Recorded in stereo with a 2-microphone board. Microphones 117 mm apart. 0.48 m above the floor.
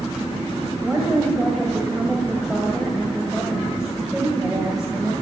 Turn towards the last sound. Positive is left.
turn(degrees=-5)  # may be behind; listen again after turning